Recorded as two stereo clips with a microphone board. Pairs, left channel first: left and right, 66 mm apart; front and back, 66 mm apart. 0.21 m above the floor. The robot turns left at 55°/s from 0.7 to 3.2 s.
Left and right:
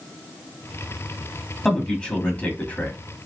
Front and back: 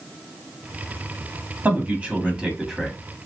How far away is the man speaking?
About 1.1 m.